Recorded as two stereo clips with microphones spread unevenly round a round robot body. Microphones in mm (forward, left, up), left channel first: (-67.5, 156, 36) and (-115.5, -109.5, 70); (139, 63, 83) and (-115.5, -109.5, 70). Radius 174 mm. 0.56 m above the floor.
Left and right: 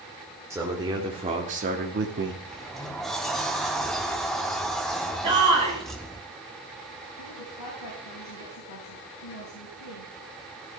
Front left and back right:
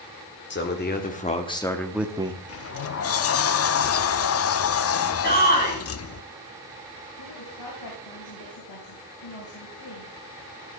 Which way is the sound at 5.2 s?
25° right.